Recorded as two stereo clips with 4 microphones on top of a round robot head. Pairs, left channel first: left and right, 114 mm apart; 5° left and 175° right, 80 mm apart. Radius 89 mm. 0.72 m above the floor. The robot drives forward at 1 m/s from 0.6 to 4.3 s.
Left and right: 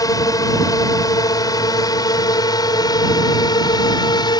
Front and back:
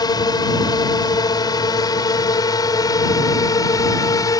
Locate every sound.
0.0 s a drone: 35° left; by 4.4 s 40° left